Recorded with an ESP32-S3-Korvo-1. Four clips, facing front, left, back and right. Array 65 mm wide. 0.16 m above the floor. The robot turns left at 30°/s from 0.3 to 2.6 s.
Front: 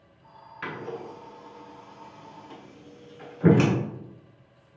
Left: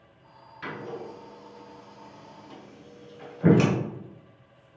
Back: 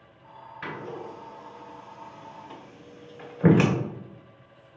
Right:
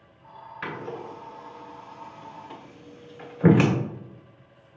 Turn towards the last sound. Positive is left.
turn(degrees=-125)